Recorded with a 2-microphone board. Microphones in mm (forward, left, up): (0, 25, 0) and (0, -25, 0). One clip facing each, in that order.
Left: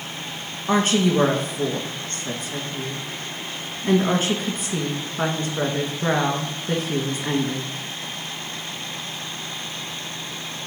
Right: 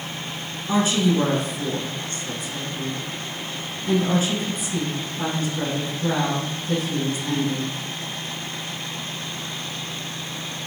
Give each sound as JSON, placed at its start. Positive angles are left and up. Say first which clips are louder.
{"t": 0.7, "sound": "a woman speaking", "louder": "left 1 dB", "side_deg": 50, "distance_m": 2.0}